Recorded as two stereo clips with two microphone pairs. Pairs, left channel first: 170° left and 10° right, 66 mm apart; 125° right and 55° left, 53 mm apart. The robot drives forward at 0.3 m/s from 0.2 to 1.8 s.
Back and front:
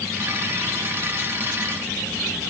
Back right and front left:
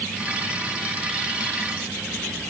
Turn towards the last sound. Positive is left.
No sound to turn to.